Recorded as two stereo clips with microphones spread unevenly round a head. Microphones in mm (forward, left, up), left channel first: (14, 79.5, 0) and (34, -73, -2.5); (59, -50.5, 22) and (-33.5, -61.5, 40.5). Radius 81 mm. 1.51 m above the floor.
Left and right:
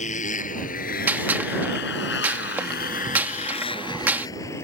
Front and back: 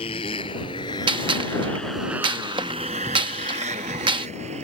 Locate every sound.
0.0 s a motorcycle: 55° left; by 4.7 s 175° left
1.1 s a gunshot: 160° right